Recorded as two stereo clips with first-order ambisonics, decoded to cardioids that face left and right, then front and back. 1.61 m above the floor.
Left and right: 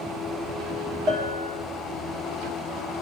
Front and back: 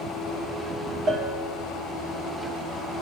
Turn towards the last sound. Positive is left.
turn(degrees=-115)